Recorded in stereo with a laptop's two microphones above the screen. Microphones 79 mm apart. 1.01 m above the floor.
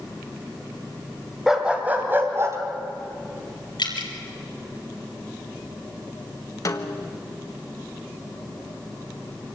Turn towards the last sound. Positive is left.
turn(degrees=45)  # may be behind; listen again after turning